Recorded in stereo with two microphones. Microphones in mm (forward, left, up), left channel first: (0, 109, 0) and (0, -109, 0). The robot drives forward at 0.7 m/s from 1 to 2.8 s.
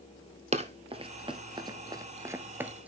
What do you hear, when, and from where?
0.5 s running footsteps: 30° right (ahead or behind), 1.2 m; by 2.9 s 5° right (ahead or behind), 1.0 m